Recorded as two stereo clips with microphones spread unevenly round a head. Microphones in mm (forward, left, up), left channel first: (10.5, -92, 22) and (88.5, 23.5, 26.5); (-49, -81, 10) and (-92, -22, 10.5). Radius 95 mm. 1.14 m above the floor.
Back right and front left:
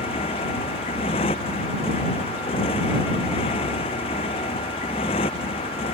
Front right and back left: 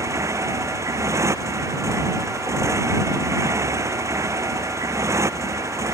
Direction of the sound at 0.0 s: 175° left.